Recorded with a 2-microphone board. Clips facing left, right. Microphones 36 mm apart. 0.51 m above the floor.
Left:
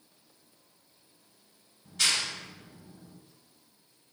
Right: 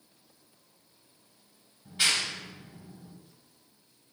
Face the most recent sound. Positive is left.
turn(degrees=-15)  # may be behind; listen again after turning